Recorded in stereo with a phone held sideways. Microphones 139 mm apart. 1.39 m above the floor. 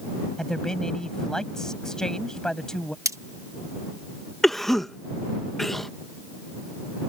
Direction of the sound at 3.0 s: 20° right (ahead or behind).